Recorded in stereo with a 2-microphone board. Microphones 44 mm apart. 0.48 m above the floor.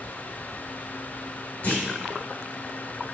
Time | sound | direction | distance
1.6 | a clunk | 50° left (ahead or behind) | 1.1 m